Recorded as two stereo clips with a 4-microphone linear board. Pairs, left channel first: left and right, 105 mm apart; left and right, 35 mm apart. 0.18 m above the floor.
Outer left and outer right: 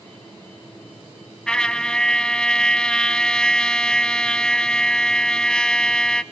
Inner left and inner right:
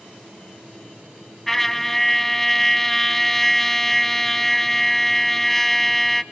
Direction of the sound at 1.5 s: 10° left (ahead or behind).